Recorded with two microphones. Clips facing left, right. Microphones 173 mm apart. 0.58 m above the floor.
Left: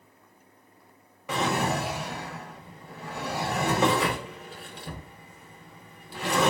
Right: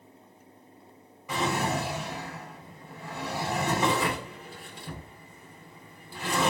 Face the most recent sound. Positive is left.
turn(degrees=70)  # may be behind; listen again after turning